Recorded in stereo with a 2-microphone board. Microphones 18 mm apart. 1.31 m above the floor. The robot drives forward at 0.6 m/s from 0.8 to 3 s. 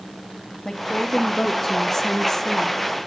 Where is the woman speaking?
10° left (ahead or behind), 2 m; by 2.8 s 15° left (ahead or behind), 1.1 m.